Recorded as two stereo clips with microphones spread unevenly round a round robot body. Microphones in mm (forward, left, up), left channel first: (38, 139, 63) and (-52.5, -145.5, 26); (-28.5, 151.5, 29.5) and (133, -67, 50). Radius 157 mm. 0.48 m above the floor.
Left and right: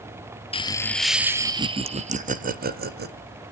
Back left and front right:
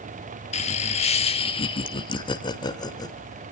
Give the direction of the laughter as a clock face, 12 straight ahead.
7 o'clock.